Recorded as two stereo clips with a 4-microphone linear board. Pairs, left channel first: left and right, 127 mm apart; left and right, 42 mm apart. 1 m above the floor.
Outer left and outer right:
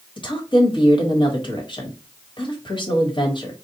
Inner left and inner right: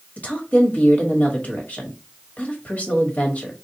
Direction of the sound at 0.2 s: 40° left (ahead or behind).